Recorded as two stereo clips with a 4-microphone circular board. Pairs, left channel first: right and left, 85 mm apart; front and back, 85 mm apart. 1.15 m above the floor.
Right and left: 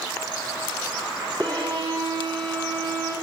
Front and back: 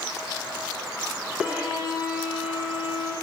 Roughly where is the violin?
Left.